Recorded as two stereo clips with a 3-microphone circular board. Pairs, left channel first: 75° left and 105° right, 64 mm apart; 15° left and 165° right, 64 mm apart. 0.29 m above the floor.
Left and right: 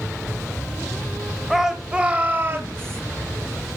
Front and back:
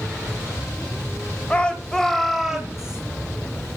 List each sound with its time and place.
1.5 s a shout: 25° right, 1.3 m; by 3.0 s 90° right, 1.7 m